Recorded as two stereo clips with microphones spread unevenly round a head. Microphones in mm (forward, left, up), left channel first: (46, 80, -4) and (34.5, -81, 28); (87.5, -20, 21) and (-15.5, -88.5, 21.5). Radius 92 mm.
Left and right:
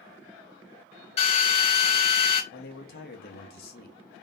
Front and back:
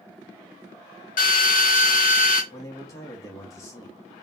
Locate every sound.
1.2 s a drill: 30° left, 1.6 m
2.5 s a man speaking: 100° left, 1.0 m